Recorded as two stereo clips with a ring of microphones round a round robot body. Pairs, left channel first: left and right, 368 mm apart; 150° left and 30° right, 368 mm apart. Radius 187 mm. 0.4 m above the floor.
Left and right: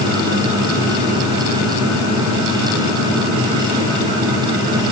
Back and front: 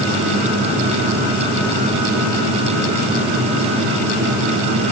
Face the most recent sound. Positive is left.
No sound to turn to.